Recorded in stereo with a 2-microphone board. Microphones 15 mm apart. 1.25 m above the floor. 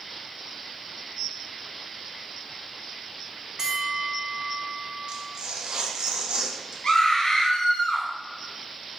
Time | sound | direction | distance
3.6 | a bell | 40° right (ahead or behind) | 1.0 m
5.1 | tearing paper | 75° right (ahead or behind) | 1.2 m
6.8 | a scream | 60° left (ahead or behind) | 1.0 m